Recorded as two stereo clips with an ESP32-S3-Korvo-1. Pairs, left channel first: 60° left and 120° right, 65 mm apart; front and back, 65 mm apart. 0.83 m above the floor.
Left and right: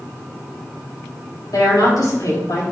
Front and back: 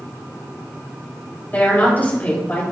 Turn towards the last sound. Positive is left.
turn(degrees=60)